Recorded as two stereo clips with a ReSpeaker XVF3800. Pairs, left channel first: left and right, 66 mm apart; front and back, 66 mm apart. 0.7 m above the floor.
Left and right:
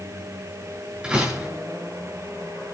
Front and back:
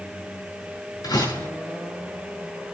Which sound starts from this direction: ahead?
A door slam, at 1.0 s.